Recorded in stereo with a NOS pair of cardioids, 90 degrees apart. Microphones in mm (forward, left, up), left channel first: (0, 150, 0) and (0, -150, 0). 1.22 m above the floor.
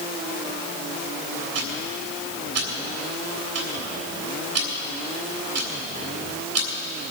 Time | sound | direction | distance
1.6 | ticking | 55° right | 3 m